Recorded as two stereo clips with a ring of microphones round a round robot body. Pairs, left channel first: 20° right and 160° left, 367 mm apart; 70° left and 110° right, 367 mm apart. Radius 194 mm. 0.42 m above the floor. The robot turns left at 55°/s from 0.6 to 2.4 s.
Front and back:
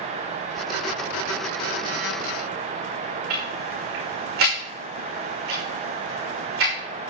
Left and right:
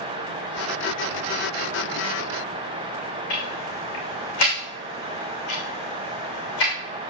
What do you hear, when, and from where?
3.3 s ticking: 100° left, 5.5 m